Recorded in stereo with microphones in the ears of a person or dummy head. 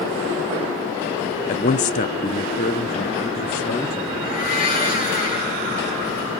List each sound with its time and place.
1.5 s a man speaking: 30° left (ahead or behind), 0.7 m; by 4.1 s 25° left (ahead or behind), 1.7 m
4.2 s a blender: 45° left (ahead or behind), 3.5 m